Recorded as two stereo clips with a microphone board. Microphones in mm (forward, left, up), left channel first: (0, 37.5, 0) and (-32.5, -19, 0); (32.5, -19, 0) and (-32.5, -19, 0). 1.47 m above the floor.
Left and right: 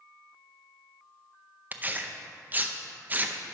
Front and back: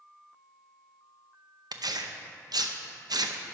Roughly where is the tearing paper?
Behind.